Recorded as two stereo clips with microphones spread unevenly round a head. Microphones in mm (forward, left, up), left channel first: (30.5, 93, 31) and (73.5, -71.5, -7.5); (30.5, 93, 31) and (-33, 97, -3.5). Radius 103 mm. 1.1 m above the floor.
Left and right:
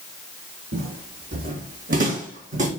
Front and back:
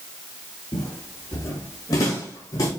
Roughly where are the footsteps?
Ahead right.